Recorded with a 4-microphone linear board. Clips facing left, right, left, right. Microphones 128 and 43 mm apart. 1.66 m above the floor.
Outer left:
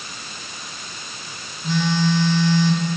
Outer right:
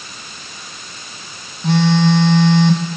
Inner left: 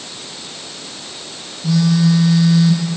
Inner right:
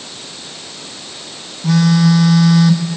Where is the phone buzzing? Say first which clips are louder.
Outer right 7 dB, inner right 2 dB; 65° right (ahead or behind), 1.7 m.